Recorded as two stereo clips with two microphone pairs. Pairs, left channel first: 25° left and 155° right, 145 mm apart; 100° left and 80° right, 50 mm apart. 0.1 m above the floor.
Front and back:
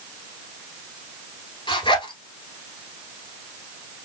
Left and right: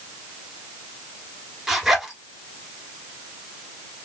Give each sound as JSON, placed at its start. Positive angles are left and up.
{"t": 1.7, "sound": "a zipper", "azimuth_deg": 0, "distance_m": 1.3}